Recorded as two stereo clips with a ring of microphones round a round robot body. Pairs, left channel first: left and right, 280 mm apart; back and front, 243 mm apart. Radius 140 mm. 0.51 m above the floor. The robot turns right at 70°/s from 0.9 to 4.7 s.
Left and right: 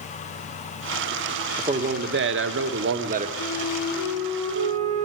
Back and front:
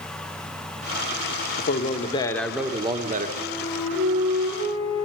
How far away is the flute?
About 9.5 m.